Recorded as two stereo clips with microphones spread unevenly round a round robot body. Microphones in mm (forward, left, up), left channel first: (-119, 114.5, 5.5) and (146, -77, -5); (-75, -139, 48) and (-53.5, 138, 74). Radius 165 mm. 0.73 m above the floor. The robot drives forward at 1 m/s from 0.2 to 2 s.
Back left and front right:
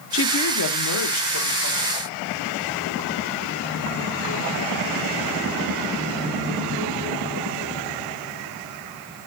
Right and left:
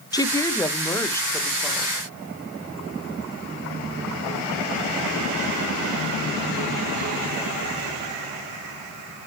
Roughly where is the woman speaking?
Behind.